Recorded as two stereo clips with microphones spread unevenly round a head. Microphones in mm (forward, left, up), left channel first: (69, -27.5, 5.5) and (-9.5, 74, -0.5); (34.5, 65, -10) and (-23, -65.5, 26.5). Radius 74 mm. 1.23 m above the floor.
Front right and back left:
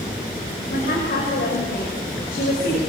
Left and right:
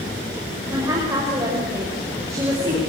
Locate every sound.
0.7 s a woman speaking: 45° right, 6 m